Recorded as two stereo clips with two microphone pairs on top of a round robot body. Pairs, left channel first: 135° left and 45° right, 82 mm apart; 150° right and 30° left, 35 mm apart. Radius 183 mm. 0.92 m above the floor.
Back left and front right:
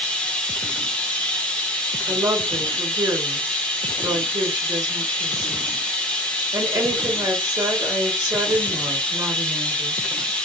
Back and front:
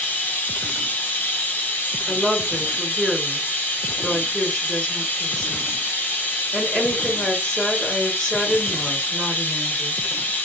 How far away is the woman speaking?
About 1.4 m.